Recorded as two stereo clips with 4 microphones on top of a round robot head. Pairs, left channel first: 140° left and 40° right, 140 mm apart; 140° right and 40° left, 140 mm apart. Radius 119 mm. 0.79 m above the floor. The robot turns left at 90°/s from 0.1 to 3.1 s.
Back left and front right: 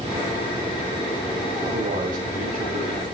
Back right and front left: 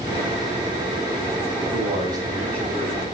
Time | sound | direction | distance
1.6 | a man speaking | 20° left | 8 m